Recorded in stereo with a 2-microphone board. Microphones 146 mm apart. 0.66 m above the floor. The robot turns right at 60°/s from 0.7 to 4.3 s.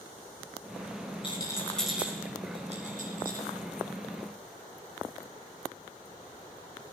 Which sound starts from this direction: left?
A rattle, at 1.2 s.